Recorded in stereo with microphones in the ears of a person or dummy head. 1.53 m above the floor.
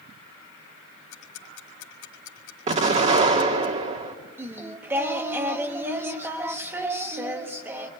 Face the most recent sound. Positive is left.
turn(degrees=-10)  # may be behind; listen again after turning